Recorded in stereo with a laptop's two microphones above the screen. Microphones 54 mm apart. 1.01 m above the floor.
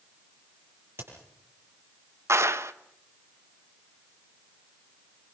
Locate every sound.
1.0 s a crack: 50° right (ahead or behind), 8.5 m
2.3 s a clap: 55° right (ahead or behind), 0.8 m